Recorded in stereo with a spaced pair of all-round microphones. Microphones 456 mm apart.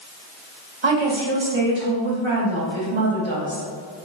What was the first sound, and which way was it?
A woman speaking, 75° right (ahead or behind).